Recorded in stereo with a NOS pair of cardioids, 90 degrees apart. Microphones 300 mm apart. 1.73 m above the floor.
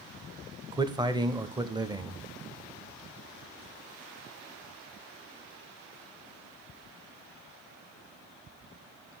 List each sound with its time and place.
0.7 s a man speaking: 15° right, 0.7 m